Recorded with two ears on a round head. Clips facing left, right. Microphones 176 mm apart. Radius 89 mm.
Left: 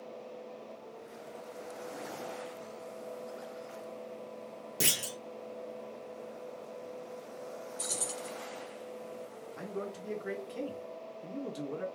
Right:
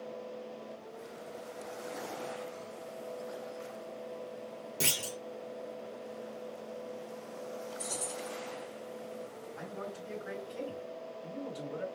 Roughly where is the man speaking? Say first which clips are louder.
Left 4 dB; left.